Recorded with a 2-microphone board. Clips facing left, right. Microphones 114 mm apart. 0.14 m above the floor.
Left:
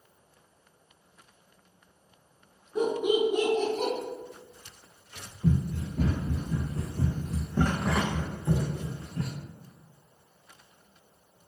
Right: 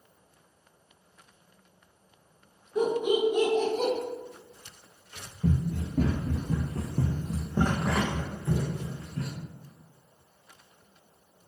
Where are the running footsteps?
85° right, 1.2 m; by 9.3 s 35° left (ahead or behind), 1.2 m.